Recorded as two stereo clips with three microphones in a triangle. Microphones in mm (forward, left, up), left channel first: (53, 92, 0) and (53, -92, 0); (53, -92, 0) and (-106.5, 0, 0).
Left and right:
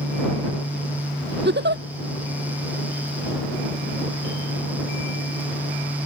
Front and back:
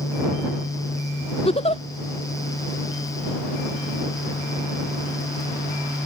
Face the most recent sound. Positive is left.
turn(degrees=-85)